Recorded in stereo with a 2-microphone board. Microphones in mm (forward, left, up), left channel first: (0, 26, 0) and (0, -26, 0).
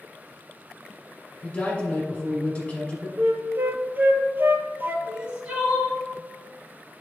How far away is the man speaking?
About 2 m.